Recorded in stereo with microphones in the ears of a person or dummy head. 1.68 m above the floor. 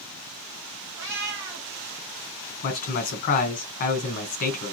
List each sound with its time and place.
1.0 s a cat meowing: 40° right (ahead or behind), 1.3 m
2.6 s a man speaking: 55° left (ahead or behind), 1.2 m